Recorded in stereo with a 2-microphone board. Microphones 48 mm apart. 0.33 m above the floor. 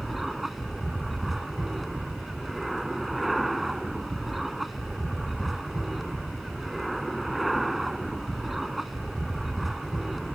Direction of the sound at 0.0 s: 5° right (ahead or behind).